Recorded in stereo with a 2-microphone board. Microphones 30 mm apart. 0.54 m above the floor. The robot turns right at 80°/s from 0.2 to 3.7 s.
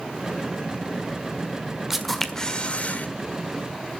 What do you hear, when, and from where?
1.9 s a camera shutter: 15° right, 1.7 m; by 3.1 s 80° left, 1.7 m